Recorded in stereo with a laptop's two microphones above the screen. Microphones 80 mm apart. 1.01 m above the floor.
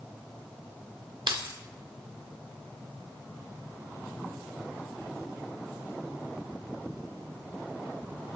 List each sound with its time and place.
1.3 s keys jangling: 85° right, 1.6 m